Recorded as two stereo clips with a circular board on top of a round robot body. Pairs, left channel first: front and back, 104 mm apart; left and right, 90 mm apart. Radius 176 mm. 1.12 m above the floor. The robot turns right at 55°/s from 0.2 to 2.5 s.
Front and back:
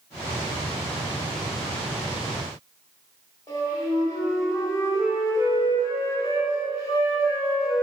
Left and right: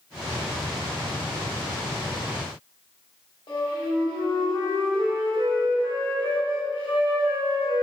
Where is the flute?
55° left, 1.6 m.